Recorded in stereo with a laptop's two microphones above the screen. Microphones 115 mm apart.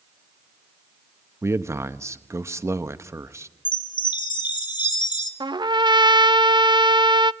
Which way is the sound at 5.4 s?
40° right (ahead or behind).